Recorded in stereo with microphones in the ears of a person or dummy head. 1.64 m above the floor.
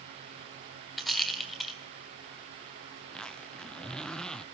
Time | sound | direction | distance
1.0 | a rattle | centre (ahead or behind) | 2 m
3.0 | a zipper | 5° left (ahead or behind) | 0.6 m